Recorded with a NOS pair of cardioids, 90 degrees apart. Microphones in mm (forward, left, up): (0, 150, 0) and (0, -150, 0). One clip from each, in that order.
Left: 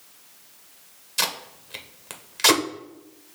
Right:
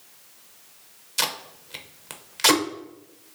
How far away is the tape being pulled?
About 0.7 m.